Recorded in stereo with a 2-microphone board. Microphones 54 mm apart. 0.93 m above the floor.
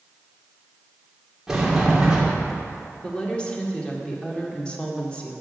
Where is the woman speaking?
20° left (ahead or behind), 1.9 m.